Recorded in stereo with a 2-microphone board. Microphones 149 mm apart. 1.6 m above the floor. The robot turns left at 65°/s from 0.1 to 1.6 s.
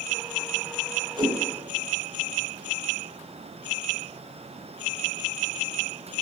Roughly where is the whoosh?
Right.